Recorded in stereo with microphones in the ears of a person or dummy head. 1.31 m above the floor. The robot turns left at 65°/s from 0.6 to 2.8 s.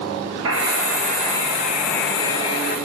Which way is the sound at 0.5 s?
95° right.